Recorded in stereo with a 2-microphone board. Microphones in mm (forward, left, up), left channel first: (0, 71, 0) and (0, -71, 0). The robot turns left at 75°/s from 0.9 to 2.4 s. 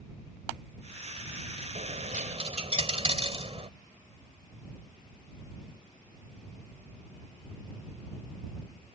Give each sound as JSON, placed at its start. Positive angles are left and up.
{"t": 1.8, "sound": "a dropped coin", "azimuth_deg": -85}